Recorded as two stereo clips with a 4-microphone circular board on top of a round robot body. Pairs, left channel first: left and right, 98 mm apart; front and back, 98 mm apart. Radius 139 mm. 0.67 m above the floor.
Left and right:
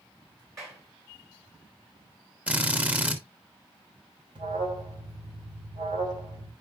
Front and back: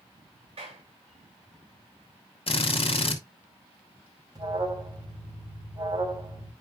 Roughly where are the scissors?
No scissors in this recording.